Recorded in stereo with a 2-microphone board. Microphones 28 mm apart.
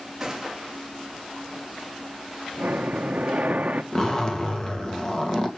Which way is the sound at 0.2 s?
15° right (ahead or behind).